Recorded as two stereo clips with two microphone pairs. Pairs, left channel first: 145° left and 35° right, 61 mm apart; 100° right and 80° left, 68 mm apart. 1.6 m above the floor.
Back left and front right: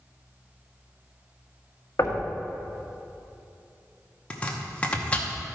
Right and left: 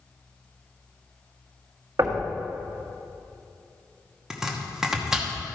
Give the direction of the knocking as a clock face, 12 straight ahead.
8 o'clock.